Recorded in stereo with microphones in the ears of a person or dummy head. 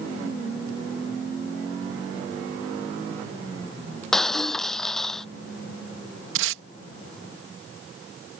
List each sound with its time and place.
4.1 s breaking glass: 5° left (ahead or behind)
6.3 s tape being pulled: 75° right (ahead or behind)